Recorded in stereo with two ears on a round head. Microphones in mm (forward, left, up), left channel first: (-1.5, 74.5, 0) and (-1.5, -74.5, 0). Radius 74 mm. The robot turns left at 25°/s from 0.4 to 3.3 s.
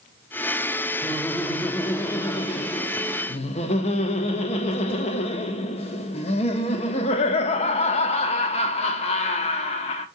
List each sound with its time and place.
1.0 s laughter: straight behind, 0.8 m; by 10.1 s 125° left, 0.8 m